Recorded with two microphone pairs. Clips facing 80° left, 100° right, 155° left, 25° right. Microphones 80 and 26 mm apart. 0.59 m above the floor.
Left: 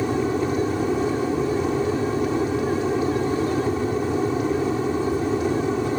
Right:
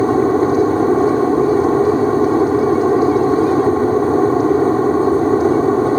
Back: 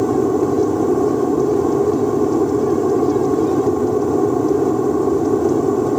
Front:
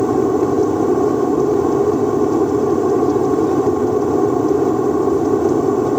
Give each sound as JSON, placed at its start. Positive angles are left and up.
{"t": 0.0, "sound": "an aircraft", "azimuth_deg": -100}